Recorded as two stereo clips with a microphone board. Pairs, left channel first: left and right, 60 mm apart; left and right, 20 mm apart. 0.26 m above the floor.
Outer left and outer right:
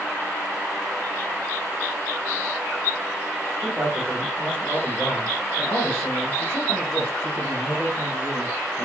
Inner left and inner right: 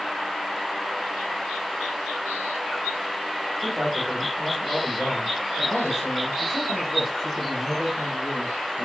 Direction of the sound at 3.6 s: 30° left (ahead or behind).